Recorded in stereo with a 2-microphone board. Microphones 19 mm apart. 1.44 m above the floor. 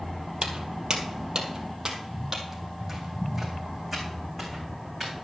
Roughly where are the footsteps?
Right.